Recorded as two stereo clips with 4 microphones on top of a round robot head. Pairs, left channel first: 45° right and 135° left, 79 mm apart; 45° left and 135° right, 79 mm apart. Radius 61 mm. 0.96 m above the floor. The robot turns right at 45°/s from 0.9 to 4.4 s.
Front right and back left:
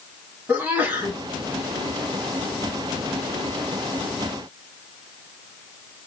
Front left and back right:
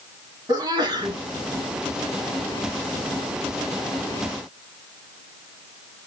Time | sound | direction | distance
0.5 | a sneeze | 160° right | 1.7 m